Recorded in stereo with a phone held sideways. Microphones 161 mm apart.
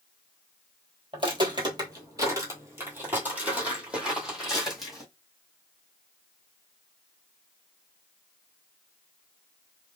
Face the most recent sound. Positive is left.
turn(degrees=0)  # may be behind; listen again after turning